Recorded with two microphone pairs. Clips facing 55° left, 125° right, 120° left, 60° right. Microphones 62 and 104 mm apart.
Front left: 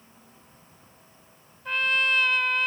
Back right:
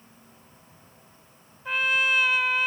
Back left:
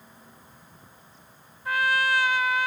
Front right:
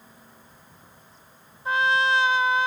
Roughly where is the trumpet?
Ahead right.